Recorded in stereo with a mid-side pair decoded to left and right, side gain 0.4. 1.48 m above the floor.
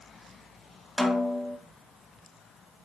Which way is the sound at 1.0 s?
15° left.